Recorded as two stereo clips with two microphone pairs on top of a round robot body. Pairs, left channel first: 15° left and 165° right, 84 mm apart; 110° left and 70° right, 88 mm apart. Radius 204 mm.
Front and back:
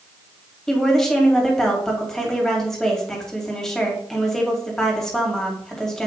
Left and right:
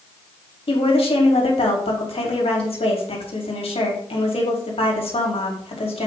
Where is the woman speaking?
100° left, 2.5 m.